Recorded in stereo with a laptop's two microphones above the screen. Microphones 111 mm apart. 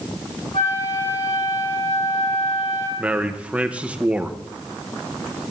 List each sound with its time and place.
0.5 s a flute: 70° left (ahead or behind), 2 m
3.0 s a man speaking: 10° right (ahead or behind), 0.7 m